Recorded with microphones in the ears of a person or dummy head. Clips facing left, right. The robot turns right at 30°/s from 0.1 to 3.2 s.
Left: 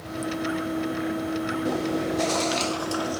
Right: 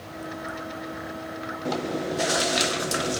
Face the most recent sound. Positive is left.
turn(degrees=-140)